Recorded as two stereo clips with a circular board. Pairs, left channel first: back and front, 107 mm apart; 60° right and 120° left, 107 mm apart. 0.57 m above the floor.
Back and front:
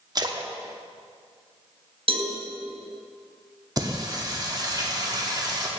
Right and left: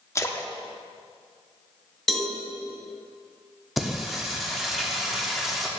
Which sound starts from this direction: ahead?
A splash, at 0.1 s.